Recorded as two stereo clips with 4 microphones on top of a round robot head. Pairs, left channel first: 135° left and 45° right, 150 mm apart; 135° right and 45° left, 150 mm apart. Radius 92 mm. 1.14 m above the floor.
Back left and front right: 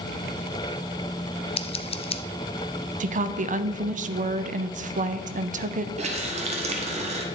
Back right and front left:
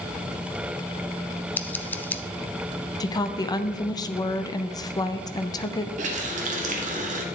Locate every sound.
1.6 s scissors: 155° left, 0.5 m
3.0 s a woman speaking: 70° right, 0.6 m
6.0 s a running tap: 5° left, 1.0 m